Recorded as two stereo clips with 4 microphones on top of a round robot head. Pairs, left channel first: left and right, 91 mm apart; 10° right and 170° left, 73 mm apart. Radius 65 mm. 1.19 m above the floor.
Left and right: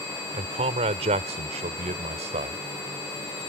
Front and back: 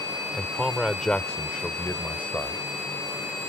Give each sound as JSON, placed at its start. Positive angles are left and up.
{"t": 0.3, "sound": "a man speaking", "azimuth_deg": -105}